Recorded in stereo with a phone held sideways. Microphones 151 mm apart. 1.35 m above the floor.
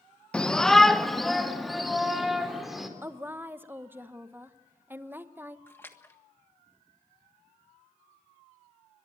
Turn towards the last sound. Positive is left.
turn(degrees=15)  # may be behind; listen again after turning